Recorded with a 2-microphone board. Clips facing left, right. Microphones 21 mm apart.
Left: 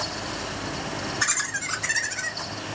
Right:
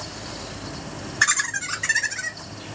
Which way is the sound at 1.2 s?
40° right (ahead or behind).